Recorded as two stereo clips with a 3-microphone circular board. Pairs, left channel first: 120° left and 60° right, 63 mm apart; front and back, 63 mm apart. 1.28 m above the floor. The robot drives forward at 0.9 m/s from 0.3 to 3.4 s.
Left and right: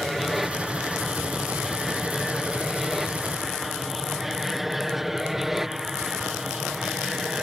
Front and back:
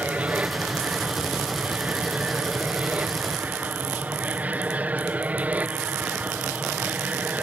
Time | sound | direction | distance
0.0 | an aircraft | 145° right | ?